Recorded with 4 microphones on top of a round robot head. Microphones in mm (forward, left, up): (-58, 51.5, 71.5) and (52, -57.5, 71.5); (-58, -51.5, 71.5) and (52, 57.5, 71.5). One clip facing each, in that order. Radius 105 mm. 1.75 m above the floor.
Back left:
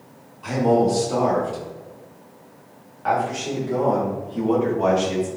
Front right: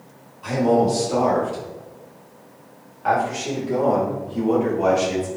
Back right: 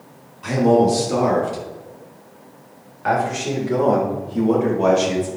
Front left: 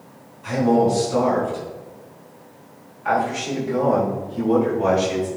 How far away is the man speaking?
About 4 m.